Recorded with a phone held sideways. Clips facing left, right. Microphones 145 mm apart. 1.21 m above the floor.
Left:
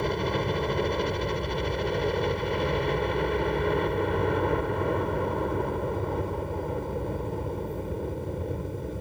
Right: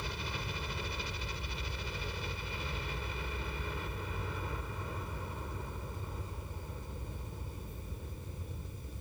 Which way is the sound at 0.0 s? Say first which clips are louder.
Left 15 dB; 65° left (ahead or behind).